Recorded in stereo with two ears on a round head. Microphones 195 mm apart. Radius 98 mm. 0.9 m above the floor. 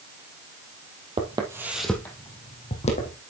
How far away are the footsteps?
About 1.7 m.